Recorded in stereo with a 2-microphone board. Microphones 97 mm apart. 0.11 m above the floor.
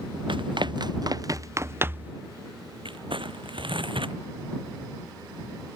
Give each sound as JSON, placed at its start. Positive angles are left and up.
{"t": 0.3, "sound": "running footsteps", "side_deg": -60}
{"t": 2.9, "sound": "crumpling", "side_deg": -60}